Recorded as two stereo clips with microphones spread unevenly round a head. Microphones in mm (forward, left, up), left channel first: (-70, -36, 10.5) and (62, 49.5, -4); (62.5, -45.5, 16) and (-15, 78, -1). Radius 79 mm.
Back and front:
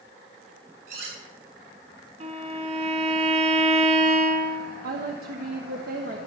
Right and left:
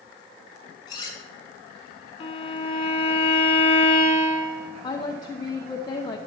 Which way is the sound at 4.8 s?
Straight ahead.